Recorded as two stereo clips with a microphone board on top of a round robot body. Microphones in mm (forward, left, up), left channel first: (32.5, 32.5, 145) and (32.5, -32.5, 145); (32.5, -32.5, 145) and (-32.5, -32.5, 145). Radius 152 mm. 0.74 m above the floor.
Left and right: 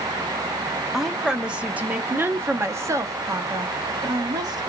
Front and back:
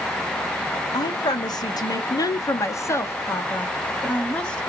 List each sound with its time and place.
0.9 s a woman speaking: 5° right, 1.5 m; by 4.7 s 80° right, 1.8 m